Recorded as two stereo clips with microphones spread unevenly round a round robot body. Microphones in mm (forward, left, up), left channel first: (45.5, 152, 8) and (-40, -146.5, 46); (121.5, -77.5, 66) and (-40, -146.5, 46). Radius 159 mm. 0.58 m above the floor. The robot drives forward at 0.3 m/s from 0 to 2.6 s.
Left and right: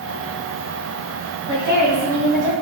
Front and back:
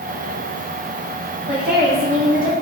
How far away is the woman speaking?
About 1.2 m.